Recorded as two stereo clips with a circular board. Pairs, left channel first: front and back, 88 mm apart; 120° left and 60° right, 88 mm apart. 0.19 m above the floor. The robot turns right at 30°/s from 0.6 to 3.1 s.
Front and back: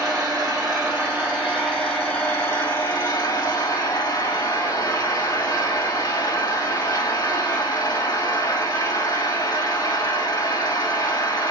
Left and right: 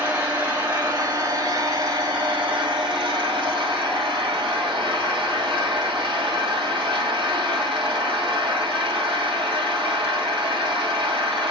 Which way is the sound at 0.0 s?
125° right.